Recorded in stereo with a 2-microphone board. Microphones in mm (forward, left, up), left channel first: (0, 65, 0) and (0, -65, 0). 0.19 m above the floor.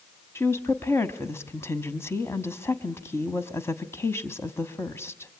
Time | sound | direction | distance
0.3 | a woman speaking | 20° left (ahead or behind) | 1.2 m